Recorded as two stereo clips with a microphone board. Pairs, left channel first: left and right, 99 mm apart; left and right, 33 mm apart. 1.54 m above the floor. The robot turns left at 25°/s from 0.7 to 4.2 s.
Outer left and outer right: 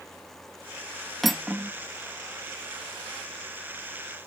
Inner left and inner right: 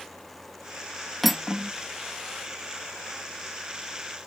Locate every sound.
1.2 s cutlery clinking: 5° left (ahead or behind); by 1.7 s 5° right (ahead or behind)